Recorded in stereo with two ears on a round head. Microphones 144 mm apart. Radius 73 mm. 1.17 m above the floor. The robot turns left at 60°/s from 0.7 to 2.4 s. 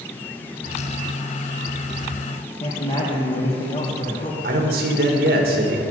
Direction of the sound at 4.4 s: 70° right (ahead or behind).